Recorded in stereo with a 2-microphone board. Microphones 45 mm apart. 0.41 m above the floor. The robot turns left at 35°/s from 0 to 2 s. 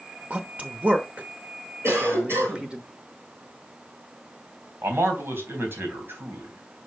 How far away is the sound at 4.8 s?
About 3.5 m.